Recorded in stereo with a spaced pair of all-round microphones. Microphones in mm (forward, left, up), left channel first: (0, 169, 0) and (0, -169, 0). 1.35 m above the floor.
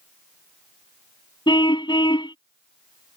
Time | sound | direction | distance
1.5 | a car horn | 15° left (ahead or behind) | ?